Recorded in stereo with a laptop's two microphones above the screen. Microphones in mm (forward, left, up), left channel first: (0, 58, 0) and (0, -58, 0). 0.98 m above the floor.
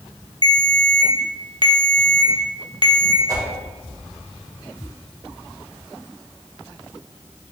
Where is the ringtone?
45° right (ahead or behind), 0.5 m.